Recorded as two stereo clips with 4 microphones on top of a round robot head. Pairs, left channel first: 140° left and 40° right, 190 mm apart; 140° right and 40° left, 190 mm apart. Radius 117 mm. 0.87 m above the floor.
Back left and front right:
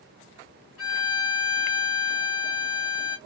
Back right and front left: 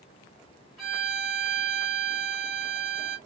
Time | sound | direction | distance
0.8 | a violin | 130° left | 1.7 m